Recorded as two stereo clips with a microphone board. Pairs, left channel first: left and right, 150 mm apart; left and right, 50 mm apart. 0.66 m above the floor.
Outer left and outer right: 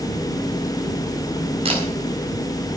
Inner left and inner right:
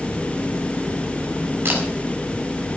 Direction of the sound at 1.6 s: 40° right (ahead or behind).